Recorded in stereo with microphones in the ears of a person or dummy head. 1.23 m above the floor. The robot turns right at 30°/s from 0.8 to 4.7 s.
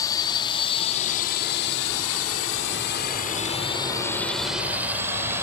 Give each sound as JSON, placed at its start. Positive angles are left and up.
{"t": 0.0, "sound": "a drone", "side_deg": 20}